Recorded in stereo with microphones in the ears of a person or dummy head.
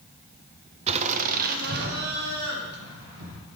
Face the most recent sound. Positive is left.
turn(degrees=-65)  # may be behind; listen again after turning